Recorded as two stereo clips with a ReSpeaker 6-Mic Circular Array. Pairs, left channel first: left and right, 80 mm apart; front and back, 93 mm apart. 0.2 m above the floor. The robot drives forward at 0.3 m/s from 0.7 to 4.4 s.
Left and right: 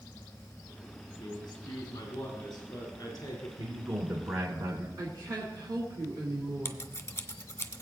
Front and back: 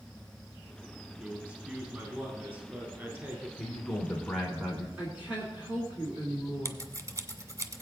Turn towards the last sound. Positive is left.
turn(degrees=135)